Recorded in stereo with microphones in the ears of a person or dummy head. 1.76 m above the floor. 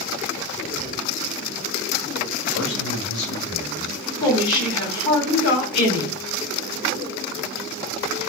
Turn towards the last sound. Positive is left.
turn(degrees=40)  # may be behind; listen again after turning